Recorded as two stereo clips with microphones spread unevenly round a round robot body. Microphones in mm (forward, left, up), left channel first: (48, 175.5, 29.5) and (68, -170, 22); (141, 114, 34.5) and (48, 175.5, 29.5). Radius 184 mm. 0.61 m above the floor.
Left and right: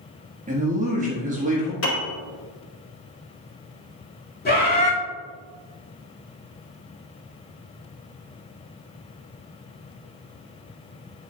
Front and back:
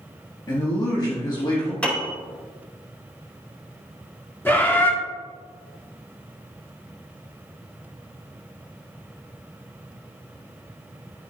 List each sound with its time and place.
0.5 s a man speaking: 40° right, 1.3 m
1.8 s a piano: 45° left, 2 m
4.5 s a bird: 35° left, 2.0 m